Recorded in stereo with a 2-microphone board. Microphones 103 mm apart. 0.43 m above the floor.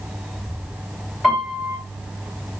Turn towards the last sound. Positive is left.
turn(degrees=0)  # may be behind; listen again after turning